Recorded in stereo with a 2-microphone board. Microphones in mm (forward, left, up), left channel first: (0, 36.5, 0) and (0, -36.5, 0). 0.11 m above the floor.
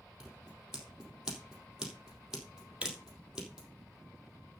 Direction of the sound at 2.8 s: 15° right (ahead or behind).